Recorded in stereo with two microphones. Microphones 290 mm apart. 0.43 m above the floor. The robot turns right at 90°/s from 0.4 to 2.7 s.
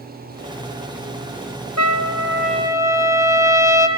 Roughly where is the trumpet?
Right.